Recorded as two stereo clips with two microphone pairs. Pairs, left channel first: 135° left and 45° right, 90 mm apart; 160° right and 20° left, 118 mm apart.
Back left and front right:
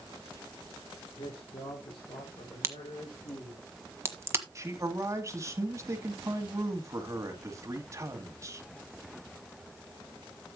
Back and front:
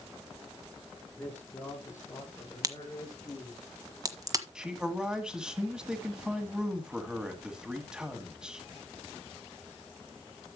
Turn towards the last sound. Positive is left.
turn(degrees=-55)